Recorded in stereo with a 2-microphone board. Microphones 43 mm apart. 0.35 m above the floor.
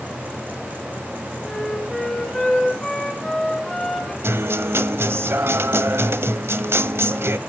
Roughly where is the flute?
Centre.